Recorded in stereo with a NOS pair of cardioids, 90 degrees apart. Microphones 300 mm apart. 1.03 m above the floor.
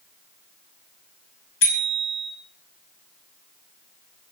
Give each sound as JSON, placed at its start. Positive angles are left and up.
{"t": 1.6, "sound": "a bicycle bell", "azimuth_deg": 45, "distance_m": 5.5}